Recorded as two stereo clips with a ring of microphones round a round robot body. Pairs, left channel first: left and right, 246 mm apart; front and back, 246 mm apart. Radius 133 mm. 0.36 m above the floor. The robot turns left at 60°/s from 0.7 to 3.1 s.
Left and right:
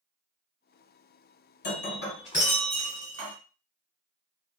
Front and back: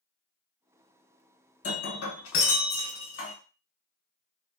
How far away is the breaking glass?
About 1.2 m.